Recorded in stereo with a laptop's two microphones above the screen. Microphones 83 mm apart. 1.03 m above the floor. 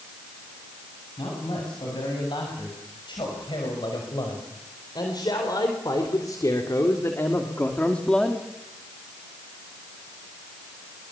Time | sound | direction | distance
1.2 | a man speaking | 70° left (ahead or behind) | 8.5 m